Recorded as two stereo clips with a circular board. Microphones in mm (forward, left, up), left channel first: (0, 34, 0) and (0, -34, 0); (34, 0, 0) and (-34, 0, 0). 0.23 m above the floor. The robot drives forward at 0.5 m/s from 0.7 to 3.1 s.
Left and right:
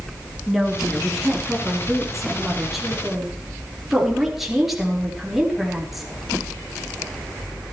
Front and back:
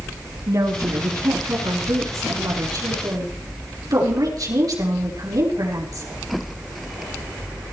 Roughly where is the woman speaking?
Behind.